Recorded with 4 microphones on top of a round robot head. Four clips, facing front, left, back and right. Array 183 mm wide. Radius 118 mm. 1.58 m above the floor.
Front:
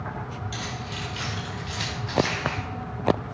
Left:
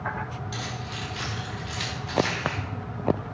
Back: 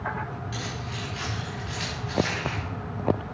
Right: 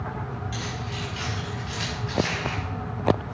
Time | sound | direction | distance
0.5 | keys jangling | 50° left | 4 m